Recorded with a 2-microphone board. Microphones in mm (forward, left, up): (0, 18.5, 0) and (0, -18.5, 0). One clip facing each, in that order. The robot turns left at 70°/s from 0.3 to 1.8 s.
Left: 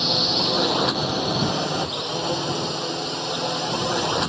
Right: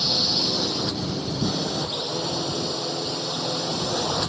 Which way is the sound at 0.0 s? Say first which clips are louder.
Left 2 dB; 155° left.